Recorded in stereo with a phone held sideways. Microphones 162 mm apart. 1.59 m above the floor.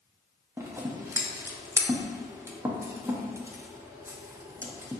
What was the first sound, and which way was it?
Scissors, 15° right (ahead or behind).